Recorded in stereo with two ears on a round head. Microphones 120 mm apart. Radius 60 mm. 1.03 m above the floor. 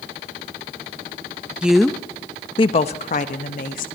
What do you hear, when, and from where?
1.6 s a woman speaking: 10° right (ahead or behind), 1.0 m; by 3.9 s 70° left (ahead or behind), 1.9 m